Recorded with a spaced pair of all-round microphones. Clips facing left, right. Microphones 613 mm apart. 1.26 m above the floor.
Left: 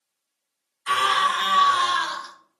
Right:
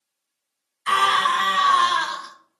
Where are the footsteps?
No footsteps in this recording.